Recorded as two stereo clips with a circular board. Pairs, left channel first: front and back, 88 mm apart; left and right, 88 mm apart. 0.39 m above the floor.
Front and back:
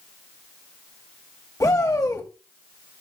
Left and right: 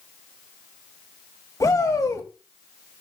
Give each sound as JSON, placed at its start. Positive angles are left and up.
{"t": 1.6, "sound": "a shout", "azimuth_deg": 45, "distance_m": 2.0}